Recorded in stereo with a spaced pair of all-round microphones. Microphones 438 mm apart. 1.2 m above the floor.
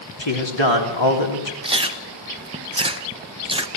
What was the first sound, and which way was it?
A man speaking, 80° left.